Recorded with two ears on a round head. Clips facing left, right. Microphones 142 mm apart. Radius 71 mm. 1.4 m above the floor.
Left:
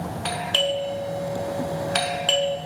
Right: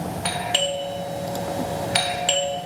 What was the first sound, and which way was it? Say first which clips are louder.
A doorbell: left 1 dB; 10° right (ahead or behind).